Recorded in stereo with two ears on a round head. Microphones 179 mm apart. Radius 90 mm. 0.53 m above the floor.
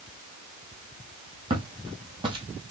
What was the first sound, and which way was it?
Footsteps, 25° right (ahead or behind).